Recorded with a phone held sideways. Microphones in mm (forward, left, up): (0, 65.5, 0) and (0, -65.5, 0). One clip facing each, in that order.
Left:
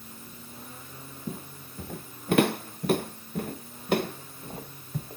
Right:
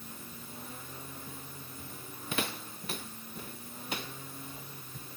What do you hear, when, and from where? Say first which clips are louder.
1.3 s footsteps: left 8 dB; 70° left (ahead or behind); by 5.2 s 60° left (ahead or behind)